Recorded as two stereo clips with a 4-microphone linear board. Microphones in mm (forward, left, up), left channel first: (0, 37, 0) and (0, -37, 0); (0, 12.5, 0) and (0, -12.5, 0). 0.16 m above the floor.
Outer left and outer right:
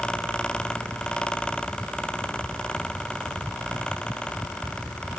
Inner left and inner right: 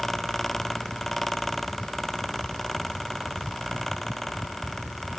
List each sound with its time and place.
Only background noise.